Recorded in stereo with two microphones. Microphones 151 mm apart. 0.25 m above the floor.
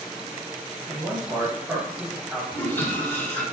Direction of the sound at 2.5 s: 15° left (ahead or behind).